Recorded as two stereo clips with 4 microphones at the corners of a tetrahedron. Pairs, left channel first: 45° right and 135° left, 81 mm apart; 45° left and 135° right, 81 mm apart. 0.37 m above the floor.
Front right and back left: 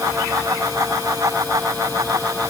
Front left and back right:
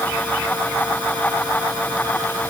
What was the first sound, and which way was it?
Only background noise.